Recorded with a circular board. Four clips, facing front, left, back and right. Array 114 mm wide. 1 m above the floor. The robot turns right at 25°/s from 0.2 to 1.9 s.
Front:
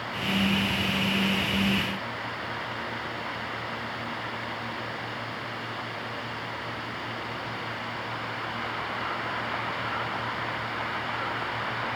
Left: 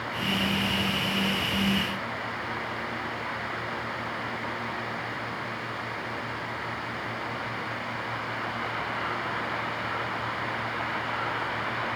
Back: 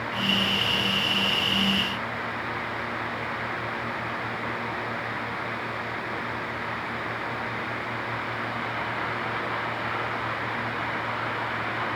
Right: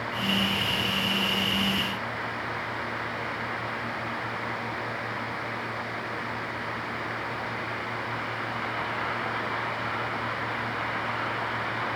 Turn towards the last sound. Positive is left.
No sound to turn to.